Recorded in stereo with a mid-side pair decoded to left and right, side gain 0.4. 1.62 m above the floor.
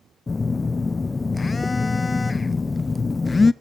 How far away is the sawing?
No sawing in this recording.